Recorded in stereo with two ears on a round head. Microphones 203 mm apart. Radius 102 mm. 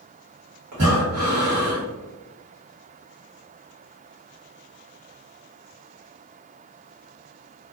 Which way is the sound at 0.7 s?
75° right (ahead or behind).